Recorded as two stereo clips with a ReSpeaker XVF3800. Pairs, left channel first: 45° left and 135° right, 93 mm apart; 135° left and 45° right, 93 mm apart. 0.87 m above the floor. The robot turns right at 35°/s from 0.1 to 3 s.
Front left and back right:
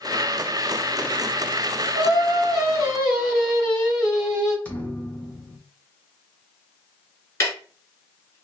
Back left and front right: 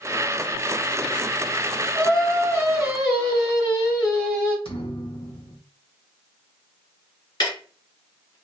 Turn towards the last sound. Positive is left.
turn(degrees=100)